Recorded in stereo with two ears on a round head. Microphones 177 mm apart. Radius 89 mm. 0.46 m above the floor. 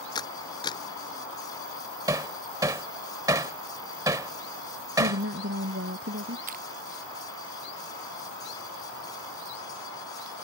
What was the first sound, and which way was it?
A camera shutter, 20° left (ahead or behind).